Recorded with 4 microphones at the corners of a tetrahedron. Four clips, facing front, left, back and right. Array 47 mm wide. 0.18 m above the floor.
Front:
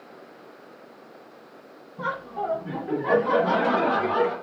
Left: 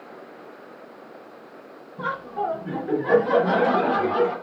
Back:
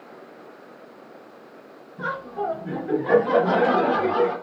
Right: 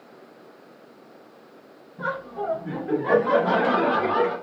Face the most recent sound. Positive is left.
turn(degrees=-60)